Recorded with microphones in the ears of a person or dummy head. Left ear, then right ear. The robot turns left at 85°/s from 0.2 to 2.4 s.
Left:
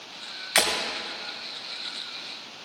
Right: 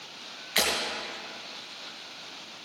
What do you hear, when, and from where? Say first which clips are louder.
0.6 s breaking glass: left 3 dB; 45° left (ahead or behind), 2 m; by 0.7 s 50° left (ahead or behind), 2 m